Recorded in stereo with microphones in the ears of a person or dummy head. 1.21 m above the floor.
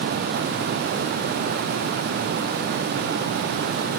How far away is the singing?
I don't hear singing.